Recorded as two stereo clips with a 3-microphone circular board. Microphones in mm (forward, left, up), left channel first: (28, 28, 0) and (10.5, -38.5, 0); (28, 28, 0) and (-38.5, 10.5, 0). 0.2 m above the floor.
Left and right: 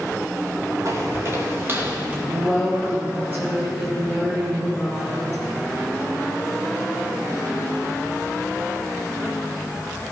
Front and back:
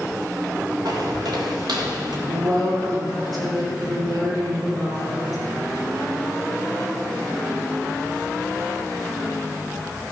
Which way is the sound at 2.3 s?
165° right.